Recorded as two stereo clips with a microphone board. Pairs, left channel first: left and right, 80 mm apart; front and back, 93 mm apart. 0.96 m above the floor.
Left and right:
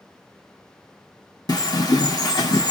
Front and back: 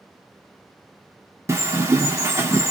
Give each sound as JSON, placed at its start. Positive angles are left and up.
{"t": 1.5, "sound": "a bird", "azimuth_deg": 125, "distance_m": 1.0}